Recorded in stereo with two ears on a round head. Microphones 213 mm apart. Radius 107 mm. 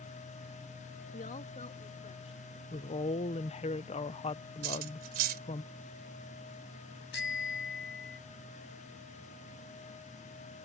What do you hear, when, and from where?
1.1 s a woman speaking: 35° left (ahead or behind); by 2.4 s 30° left (ahead or behind)
2.7 s a woman speaking: 25° left (ahead or behind)
4.6 s cutlery clinking: 40° right (ahead or behind)
7.1 s a bicycle bell: 50° left (ahead or behind)